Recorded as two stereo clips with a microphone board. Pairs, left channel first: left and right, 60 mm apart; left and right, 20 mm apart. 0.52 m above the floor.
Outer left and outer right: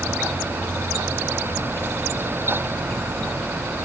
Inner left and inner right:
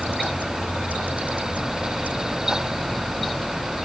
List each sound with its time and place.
Only background noise.